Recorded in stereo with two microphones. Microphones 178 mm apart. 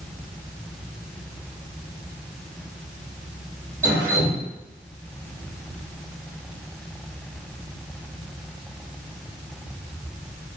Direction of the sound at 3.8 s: 20° right (ahead or behind).